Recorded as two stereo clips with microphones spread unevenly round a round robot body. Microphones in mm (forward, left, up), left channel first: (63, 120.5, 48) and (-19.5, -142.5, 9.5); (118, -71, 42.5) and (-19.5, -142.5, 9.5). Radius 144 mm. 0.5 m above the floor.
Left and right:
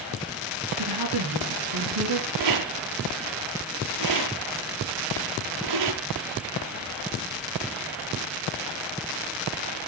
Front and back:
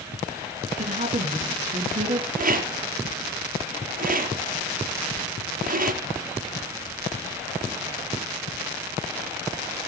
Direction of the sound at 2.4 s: 120° right.